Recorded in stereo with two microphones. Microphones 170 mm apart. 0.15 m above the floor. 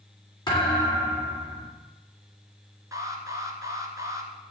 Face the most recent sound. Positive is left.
turn(degrees=-20)  # may be behind; listen again after turning